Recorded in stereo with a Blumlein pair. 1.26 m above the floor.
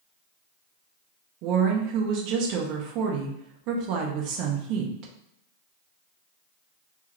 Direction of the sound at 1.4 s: 40° right.